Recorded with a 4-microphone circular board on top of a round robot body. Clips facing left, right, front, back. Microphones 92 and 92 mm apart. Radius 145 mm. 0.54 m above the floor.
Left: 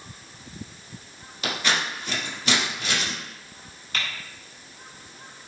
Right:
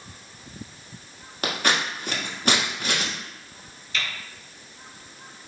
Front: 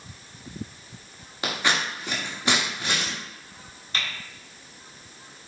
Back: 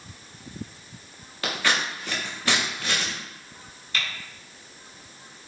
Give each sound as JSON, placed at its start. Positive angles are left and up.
{"t": 1.4, "sound": "scissors", "azimuth_deg": -65, "distance_m": 1.4}
{"t": 3.9, "sound": "typing on a keyboard", "azimuth_deg": 55, "distance_m": 1.7}